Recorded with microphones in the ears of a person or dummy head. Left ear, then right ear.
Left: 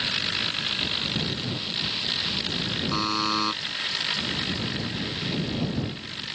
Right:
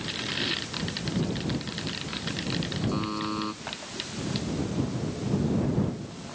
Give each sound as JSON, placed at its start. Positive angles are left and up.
{"t": 2.9, "sound": "a buzzer", "side_deg": 65}